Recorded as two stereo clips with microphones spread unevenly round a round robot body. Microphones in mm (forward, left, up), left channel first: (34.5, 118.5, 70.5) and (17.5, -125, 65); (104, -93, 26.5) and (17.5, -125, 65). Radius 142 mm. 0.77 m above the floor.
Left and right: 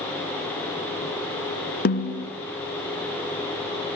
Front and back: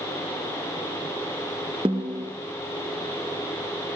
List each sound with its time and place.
1.9 s a snare drum: 140° left, 1.6 m